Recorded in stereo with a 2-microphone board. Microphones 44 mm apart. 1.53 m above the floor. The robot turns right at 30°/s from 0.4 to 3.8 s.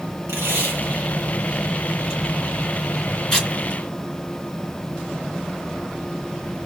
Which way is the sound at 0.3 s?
80° right.